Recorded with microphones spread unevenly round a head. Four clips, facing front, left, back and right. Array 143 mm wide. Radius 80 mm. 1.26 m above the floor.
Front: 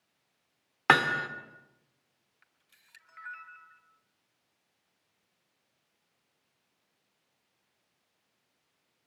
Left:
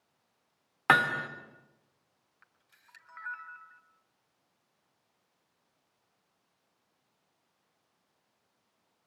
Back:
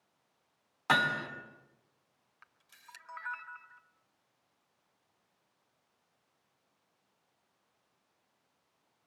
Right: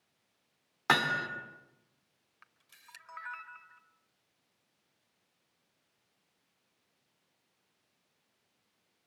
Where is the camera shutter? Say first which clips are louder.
Right 4 dB, back 12 dB; 155° right, 1.4 m.